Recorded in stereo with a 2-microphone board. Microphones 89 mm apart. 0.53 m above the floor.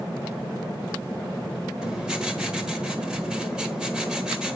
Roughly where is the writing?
Centre.